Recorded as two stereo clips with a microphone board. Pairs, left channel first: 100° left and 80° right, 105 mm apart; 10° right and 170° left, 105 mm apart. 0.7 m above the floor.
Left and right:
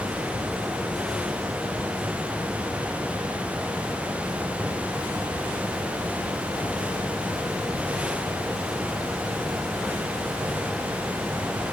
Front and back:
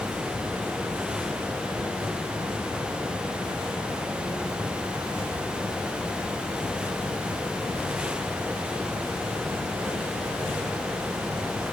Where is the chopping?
No chopping in this recording.